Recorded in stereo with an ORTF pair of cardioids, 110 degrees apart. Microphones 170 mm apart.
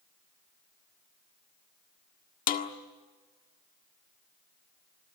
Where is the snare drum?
55° left, 1.7 m.